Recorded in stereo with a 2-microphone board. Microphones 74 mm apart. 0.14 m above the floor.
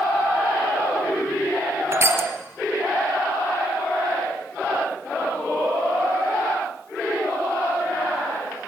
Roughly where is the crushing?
Right.